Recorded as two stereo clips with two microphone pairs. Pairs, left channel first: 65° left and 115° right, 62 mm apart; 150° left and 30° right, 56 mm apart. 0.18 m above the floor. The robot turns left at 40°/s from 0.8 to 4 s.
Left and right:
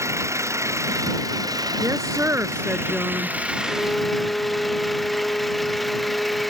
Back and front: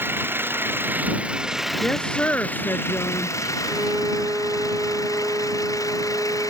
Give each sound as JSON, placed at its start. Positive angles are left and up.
{"t": 0.0, "sound": "an engine running", "azimuth_deg": -75}
{"t": 1.8, "sound": "a woman speaking", "azimuth_deg": -135}
{"t": 3.6, "sound": "a violin", "azimuth_deg": 15}